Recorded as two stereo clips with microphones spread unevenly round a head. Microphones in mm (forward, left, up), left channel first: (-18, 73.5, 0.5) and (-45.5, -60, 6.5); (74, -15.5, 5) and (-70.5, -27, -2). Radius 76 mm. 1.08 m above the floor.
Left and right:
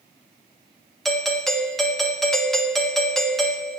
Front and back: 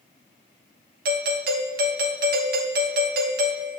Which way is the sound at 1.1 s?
165° left.